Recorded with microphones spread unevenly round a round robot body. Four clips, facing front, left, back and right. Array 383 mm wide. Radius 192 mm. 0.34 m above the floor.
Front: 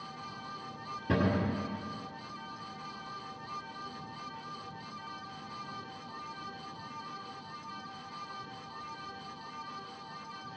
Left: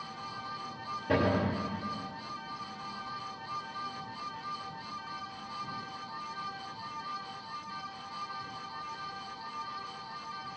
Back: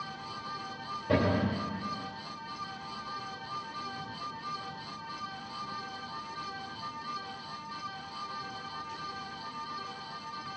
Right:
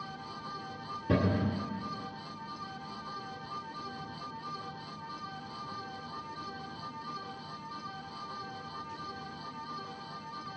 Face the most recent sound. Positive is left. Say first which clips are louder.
# left 1 dB, back 2 dB
turn(degrees=-65)